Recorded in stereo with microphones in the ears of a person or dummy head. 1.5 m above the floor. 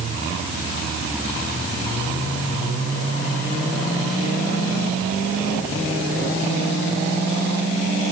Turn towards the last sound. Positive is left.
No sound to turn to.